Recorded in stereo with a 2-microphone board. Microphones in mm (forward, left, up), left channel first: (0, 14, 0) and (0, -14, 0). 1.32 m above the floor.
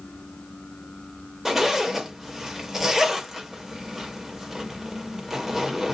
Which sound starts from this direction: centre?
A zipper, at 1.4 s.